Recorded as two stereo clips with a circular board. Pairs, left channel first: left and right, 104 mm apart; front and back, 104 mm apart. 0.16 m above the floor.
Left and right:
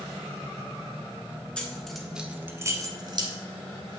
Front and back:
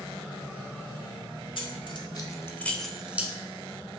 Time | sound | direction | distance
1.6 | keys jangling | 15° left | 1.6 m